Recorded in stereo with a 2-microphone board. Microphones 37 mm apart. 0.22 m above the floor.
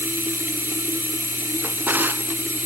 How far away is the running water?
About 1.7 m.